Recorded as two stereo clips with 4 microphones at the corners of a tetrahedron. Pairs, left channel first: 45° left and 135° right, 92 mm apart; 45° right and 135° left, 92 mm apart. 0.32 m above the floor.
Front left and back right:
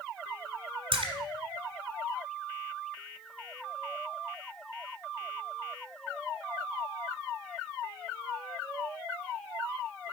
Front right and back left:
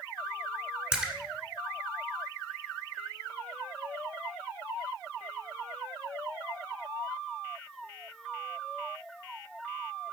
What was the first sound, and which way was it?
A splash, 145° right.